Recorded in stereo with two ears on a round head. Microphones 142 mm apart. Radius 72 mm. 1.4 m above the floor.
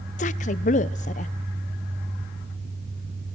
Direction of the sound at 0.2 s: 45° left (ahead or behind).